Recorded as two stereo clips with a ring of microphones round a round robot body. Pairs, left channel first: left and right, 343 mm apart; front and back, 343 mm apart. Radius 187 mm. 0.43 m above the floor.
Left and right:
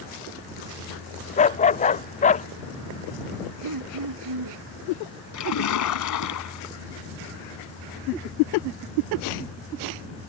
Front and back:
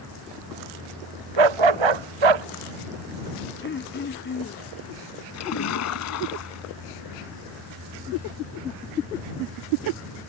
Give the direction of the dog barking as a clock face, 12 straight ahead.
7 o'clock.